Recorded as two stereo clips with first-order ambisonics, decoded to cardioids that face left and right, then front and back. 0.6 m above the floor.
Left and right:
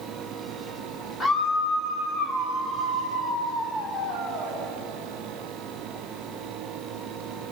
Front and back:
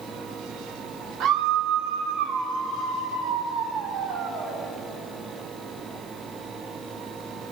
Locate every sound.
1.2 s a scream: 150° left, 1.0 m; by 4.6 s 145° left, 4.5 m